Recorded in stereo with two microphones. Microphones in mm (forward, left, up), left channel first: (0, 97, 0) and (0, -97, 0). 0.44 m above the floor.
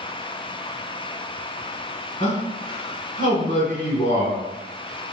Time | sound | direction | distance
2.2 | a man speaking | 40° left (ahead or behind) | 1.3 m